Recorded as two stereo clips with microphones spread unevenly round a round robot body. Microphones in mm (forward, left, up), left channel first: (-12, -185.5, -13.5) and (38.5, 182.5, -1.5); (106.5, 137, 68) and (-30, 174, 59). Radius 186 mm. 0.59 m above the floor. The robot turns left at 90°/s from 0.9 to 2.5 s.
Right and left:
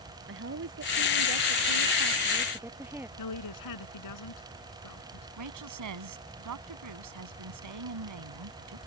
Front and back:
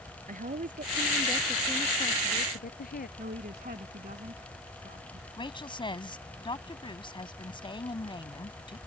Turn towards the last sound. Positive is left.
turn(degrees=40)